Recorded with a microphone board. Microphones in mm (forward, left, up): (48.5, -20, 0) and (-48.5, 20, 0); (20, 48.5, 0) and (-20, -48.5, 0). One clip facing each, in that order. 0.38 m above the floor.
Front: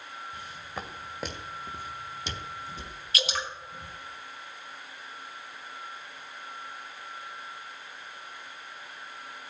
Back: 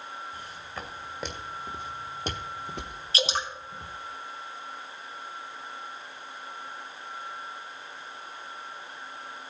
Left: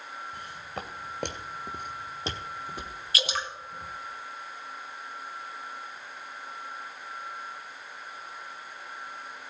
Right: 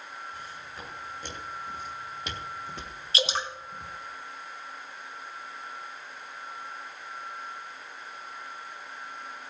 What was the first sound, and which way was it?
Footsteps, 45° left.